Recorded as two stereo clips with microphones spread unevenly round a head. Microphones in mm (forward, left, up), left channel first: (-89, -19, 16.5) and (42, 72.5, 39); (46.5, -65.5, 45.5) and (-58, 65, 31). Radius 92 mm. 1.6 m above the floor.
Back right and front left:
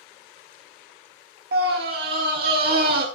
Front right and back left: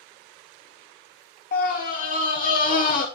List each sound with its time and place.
1.5 s a scream: 5° right, 1.3 m